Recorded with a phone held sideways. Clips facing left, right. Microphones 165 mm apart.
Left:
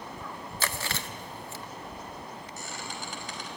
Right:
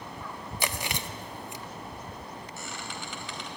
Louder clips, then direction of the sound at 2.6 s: Left 1 dB; 45° left (ahead or behind).